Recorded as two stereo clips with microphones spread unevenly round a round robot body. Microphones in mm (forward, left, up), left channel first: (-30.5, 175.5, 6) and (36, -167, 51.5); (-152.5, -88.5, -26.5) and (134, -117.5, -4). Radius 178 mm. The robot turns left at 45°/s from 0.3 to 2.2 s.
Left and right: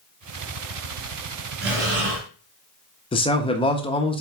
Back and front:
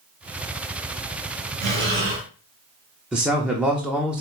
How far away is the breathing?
About 2 m.